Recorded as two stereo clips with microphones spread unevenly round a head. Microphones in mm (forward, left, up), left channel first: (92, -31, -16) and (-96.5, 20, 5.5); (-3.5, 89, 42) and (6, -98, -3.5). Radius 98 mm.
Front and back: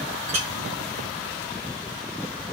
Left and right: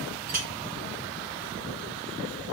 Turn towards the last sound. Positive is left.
turn(degrees=-135)